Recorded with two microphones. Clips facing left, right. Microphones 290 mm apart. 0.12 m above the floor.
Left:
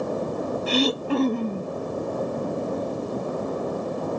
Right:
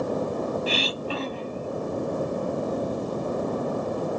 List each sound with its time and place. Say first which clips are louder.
0.7 s throat clearing: left 6 dB; 50° left (ahead or behind)